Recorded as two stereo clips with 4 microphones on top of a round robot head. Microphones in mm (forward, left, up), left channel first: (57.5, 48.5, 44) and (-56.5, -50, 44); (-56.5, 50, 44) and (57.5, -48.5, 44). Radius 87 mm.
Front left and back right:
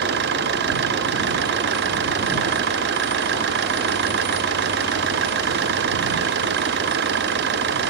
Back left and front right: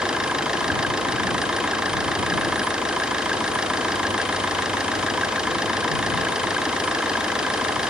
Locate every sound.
0.0 s an engine running: 125° right